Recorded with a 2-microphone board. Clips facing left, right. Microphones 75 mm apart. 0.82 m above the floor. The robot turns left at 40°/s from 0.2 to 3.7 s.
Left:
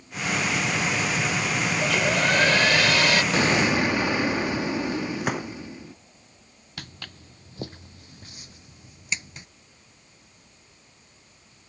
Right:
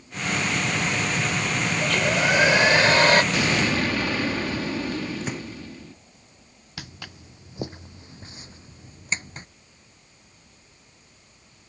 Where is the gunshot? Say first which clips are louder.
Left 4 dB; 65° left (ahead or behind).